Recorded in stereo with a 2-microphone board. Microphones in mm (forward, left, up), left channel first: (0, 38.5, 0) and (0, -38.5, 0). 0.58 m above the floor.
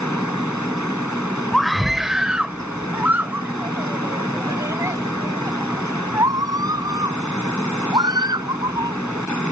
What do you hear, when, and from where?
1.5 s a scream: 5° left (ahead or behind); by 9.0 s 65° right (ahead or behind)